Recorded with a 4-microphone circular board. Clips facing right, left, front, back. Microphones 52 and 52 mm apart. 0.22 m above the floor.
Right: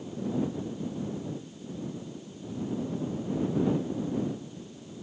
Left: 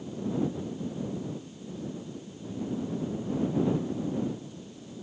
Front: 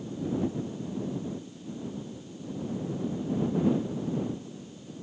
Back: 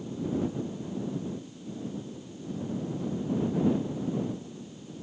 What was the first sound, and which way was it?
Only background noise.